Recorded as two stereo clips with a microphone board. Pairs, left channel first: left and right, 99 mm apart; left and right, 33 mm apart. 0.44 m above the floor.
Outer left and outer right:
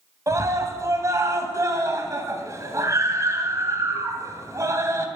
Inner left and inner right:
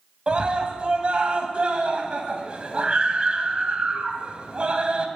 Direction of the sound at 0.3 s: 35° right (ahead or behind).